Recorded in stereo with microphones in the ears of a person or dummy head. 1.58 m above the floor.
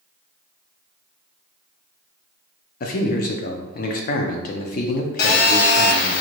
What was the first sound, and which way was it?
A man speaking, 50° left (ahead or behind).